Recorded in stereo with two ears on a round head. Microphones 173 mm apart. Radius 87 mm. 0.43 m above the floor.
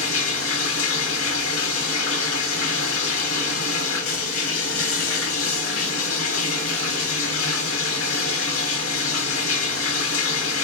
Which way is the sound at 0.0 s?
80° left.